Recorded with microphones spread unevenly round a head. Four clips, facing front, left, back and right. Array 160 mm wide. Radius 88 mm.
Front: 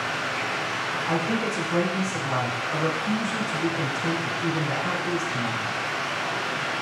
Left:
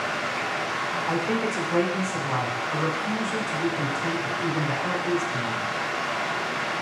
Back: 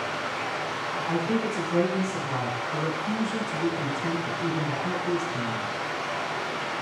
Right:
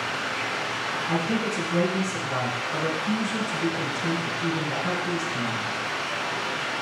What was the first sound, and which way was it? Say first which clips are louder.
Running water: left 2 dB, front 2 dB; 70° left.